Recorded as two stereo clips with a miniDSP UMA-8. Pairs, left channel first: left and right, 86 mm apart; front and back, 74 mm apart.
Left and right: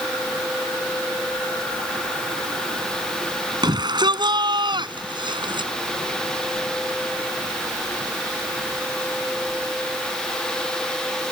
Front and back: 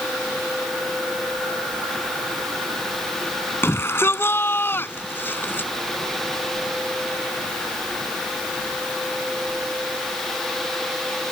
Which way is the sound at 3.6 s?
55° right.